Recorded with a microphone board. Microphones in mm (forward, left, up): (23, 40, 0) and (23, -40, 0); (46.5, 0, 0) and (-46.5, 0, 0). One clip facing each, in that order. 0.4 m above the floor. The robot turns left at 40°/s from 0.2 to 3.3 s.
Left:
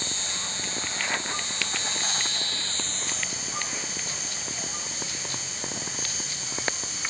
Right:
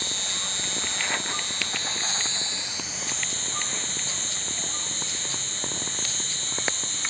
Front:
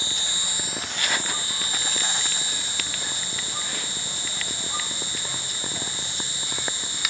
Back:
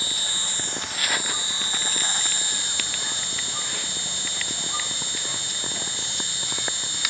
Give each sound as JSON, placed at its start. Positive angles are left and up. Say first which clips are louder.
{"t": 0.0, "sound": "an insect", "louder": "even, even", "azimuth_deg": -60}